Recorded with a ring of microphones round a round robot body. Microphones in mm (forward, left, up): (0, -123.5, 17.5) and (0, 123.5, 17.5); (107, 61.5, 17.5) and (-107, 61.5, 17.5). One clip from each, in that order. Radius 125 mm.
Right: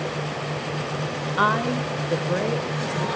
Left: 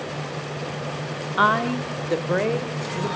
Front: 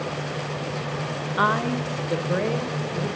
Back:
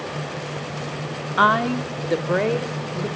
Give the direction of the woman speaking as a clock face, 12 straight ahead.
6 o'clock.